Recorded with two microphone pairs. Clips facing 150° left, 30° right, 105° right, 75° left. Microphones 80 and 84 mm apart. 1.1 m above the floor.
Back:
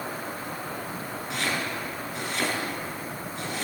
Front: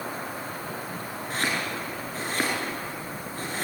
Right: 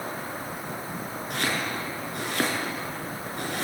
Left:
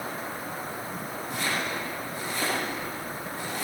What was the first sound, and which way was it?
Chopping, 85° right.